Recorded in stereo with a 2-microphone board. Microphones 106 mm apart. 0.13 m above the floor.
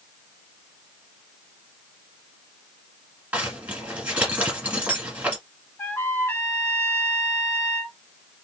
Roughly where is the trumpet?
Left.